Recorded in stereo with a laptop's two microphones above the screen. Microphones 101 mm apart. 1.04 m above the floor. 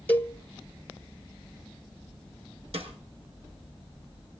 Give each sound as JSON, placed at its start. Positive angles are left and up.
{"t": 0.1, "sound": "a cowbell", "side_deg": 15, "distance_m": 1.5}
{"t": 2.7, "sound": "a snare drum", "side_deg": -80, "distance_m": 6.5}